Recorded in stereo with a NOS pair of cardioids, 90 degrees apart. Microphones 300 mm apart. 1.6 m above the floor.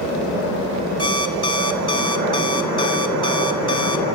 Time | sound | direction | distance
1.0 | an alarm clock | 15° left | 3 m